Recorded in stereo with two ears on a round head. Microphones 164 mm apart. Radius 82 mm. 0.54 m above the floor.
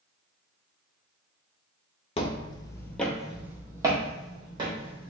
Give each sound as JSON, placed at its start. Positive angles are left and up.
{"t": 2.2, "sound": "footsteps", "side_deg": 35, "distance_m": 0.6}